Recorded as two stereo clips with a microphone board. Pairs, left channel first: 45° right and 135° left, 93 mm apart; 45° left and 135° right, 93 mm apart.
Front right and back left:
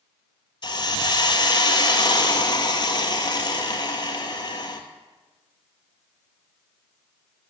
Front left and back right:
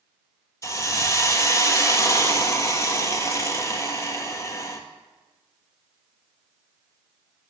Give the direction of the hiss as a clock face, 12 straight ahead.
12 o'clock.